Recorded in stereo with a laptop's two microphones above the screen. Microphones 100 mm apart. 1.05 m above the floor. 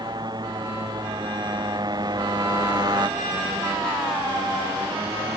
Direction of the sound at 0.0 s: 45° right (ahead or behind).